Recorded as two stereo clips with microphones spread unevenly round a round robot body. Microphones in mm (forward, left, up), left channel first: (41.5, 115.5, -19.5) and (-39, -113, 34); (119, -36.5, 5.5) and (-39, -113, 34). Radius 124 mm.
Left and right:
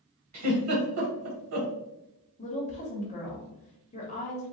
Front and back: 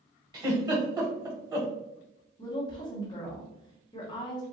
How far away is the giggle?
About 1.6 m.